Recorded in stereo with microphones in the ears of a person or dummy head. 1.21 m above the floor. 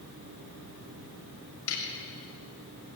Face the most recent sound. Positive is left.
turn(degrees=90)